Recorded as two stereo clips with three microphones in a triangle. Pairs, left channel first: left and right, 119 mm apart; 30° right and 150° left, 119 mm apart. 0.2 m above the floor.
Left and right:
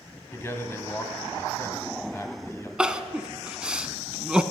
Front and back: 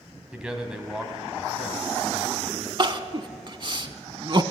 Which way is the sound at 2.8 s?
170° right.